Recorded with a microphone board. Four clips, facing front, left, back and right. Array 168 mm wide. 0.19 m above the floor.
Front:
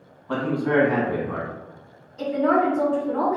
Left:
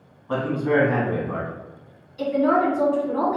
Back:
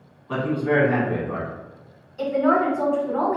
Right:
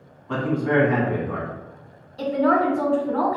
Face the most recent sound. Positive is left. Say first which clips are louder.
# even, back 1 dB
turn(degrees=-105)